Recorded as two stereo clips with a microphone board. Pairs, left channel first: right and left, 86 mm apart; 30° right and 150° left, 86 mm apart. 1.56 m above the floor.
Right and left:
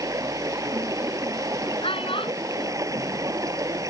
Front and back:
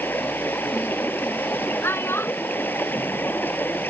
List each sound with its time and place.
0.0 s running water: 40° left
1.8 s a child speaking: 90° right